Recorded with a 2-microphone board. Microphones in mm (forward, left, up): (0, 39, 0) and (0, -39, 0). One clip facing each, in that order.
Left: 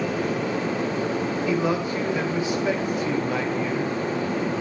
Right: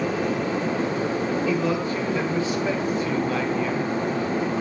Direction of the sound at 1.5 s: 15° left (ahead or behind).